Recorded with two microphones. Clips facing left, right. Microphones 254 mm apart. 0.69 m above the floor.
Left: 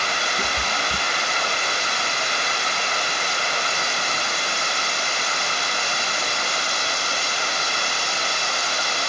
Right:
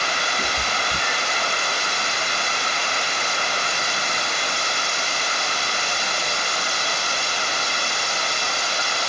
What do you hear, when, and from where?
0.4 s a cat meowing: 30° left (ahead or behind), 1.5 m